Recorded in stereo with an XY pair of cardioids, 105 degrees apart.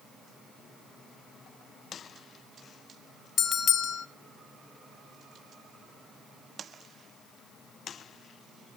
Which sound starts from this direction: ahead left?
A bell, at 3.4 s.